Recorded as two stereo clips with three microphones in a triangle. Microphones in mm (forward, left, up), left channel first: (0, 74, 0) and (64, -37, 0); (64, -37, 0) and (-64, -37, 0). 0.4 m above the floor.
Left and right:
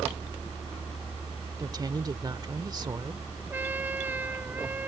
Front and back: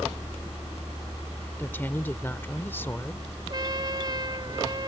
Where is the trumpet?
130° right.